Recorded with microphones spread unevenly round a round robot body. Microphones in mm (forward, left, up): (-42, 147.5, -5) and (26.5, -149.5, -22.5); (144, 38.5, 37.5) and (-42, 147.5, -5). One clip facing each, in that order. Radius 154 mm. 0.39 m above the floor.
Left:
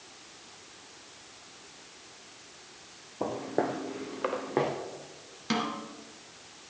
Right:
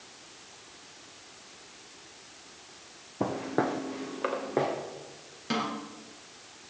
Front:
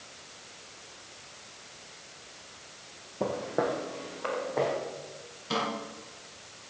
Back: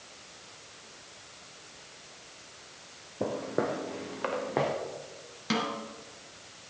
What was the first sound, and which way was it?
Footsteps, 125° right.